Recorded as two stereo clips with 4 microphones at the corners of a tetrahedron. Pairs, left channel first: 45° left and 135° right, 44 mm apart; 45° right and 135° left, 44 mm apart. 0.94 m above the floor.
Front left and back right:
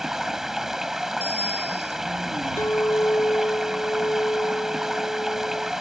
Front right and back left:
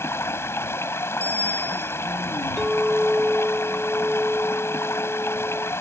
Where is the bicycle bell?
95° right.